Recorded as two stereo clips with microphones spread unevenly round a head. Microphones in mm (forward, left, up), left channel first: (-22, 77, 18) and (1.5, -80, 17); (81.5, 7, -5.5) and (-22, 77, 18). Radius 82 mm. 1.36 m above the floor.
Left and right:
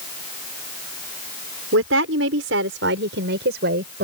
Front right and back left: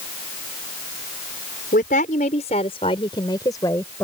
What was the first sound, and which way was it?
A woman speaking, 80° right.